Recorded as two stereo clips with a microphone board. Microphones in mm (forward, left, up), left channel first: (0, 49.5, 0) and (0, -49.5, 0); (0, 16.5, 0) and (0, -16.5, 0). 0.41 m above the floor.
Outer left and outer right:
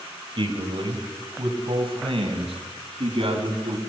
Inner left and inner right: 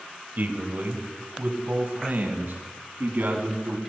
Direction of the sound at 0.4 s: 60° right (ahead or behind).